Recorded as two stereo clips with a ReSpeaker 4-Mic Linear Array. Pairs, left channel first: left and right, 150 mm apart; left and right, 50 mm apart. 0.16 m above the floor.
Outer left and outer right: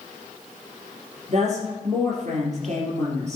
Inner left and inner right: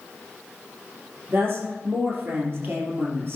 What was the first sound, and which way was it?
A woman speaking, 50° right (ahead or behind).